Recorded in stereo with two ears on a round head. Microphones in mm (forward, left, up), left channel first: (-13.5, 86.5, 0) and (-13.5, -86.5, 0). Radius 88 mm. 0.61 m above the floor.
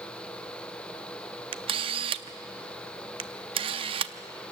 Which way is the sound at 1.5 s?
30° right (ahead or behind).